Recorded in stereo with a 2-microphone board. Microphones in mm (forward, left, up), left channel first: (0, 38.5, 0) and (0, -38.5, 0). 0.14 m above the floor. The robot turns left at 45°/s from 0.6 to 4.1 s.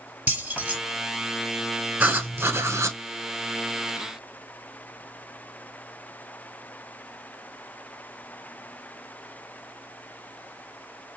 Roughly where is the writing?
Ahead right.